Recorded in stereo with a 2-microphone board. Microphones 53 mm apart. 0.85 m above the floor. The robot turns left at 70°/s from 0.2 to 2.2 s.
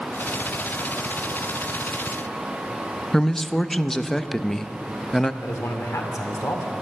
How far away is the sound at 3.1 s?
About 0.5 m.